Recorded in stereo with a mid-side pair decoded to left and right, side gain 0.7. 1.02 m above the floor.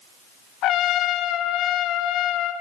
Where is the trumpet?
55° left, 2.5 m.